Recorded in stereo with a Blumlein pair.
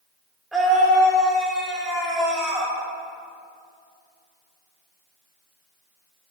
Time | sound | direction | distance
0.5 | a scream | 5° right | 3 m